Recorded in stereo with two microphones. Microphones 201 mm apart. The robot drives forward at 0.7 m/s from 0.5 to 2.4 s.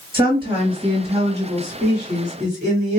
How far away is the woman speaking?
About 1.9 m.